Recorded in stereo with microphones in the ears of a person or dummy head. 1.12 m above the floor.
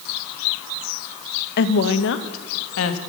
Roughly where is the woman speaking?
Left.